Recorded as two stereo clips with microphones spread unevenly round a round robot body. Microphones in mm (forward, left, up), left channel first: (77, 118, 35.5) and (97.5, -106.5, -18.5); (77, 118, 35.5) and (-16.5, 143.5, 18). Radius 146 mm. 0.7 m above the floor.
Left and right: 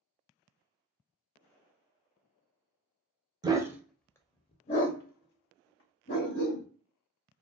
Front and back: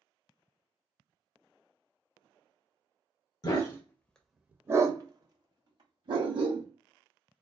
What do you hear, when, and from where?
3.4 s a dog barking: 5° right, 0.6 m; by 6.7 s 130° left, 1.3 m